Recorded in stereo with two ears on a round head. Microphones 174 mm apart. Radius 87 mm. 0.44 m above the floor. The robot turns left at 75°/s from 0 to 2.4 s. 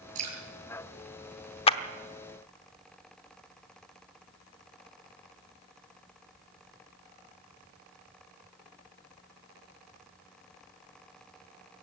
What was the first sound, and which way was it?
Dripping, 45° right (ahead or behind).